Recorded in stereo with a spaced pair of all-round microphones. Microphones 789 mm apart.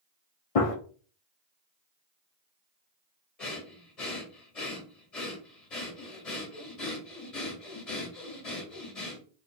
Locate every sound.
0.6 s a gunshot: 50° left (ahead or behind), 0.7 m
3.4 s breathing: 50° left (ahead or behind), 1.6 m